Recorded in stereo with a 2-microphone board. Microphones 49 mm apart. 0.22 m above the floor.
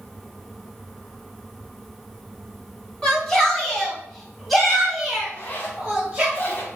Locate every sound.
3.0 s a shout: 15° left (ahead or behind), 2 m; by 6.3 s 15° right (ahead or behind), 2.0 m
5.3 s a zipper: 40° left (ahead or behind), 1.3 m